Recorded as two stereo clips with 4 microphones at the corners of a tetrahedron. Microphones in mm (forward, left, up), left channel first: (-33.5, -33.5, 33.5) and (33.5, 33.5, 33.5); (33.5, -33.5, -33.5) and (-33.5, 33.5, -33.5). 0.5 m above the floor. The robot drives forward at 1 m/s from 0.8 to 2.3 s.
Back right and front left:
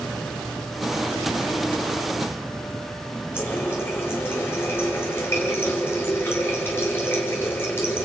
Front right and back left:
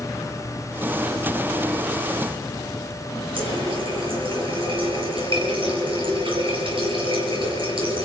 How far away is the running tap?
About 6.5 m.